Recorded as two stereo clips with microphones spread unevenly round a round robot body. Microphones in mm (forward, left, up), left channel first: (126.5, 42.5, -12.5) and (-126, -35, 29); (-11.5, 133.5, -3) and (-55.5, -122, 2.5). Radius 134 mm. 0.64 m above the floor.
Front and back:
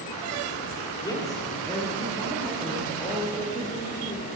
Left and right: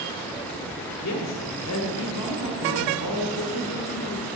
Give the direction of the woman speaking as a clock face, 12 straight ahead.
9 o'clock.